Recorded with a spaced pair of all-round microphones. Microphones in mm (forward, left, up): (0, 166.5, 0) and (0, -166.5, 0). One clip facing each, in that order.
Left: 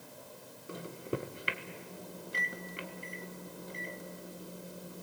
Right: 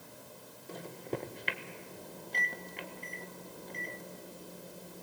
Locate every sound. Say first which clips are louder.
0.7 s a microwave: left 1 dB; 10° left (ahead or behind), 1.5 m